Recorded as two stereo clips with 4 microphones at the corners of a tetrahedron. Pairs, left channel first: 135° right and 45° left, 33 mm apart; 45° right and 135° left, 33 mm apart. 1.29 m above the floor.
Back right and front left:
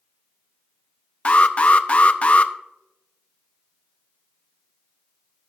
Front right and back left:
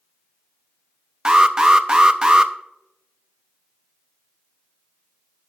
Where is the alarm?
170° right, 0.7 m.